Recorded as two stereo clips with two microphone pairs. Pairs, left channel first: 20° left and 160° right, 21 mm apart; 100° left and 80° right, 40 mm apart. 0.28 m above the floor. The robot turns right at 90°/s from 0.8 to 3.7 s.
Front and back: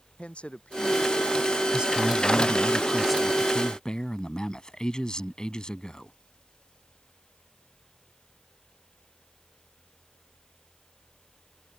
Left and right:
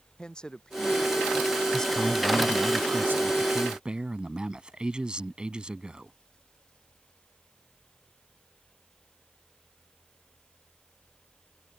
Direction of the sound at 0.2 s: 30° left.